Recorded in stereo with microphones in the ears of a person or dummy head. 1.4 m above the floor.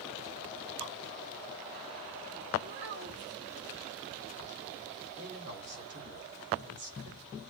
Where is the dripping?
80° right, 4.5 m.